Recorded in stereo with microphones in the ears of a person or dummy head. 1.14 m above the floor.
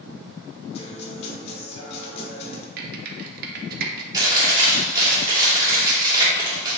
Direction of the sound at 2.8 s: 50° right (ahead or behind).